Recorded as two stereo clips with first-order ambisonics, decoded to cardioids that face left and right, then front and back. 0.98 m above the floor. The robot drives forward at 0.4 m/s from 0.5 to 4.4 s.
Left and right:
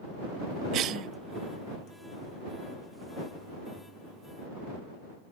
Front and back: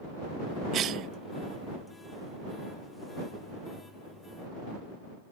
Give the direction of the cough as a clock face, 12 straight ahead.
4 o'clock.